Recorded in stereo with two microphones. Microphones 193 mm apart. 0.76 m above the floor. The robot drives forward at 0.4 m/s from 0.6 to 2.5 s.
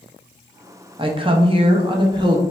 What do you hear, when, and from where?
1.0 s a woman speaking: 25° right (ahead or behind), 0.6 m; by 2.4 s 20° right (ahead or behind), 0.7 m